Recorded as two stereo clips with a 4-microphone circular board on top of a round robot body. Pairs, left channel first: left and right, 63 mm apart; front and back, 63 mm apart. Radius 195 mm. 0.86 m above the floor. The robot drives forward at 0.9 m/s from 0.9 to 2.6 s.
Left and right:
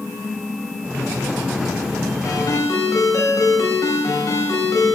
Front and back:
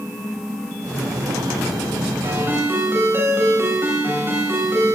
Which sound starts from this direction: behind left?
A ringtone, at 2.2 s.